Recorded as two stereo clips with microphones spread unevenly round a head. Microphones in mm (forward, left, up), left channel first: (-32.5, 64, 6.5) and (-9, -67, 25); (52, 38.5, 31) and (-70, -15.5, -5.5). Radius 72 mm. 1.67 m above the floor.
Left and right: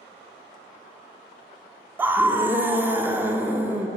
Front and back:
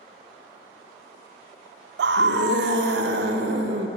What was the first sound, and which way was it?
A scream, 155° right.